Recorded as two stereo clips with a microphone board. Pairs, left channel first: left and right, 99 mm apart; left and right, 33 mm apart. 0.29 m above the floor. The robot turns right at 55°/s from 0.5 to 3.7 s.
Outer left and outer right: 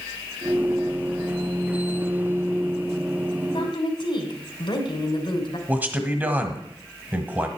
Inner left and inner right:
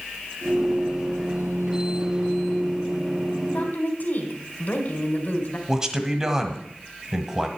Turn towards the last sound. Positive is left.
turn(degrees=-20)  # may be behind; listen again after turning